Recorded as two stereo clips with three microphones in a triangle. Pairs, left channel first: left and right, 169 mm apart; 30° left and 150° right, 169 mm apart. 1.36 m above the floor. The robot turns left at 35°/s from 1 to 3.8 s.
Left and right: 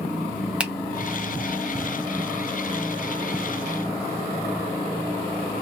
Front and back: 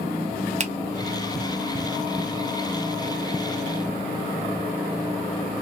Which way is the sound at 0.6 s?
170° right.